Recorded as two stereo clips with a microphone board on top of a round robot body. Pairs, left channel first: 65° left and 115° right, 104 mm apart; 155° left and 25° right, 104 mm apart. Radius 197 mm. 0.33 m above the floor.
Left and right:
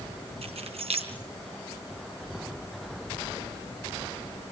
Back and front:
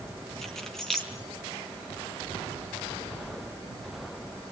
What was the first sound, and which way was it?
Keys jangling, 120° right.